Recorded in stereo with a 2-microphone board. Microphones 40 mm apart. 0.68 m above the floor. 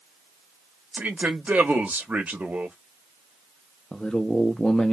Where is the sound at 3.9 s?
20° left (ahead or behind), 0.5 m.